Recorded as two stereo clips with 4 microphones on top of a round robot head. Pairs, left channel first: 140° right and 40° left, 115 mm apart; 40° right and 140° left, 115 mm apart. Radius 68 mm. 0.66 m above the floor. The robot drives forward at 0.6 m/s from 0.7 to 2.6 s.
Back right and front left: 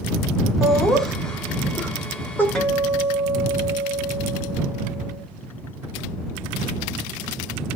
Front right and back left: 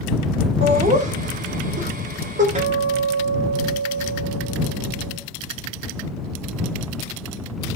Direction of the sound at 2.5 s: 135° left.